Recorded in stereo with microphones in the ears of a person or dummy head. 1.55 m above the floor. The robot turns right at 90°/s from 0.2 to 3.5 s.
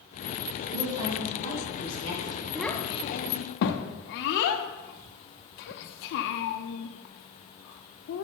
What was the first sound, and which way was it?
A woman speaking, 45° right.